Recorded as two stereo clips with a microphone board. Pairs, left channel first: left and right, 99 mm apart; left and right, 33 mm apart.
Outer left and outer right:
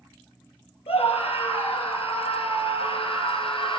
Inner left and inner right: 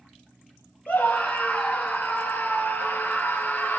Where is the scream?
75° left (ahead or behind), 4.5 m; by 3.8 s 60° left (ahead or behind), 3.5 m.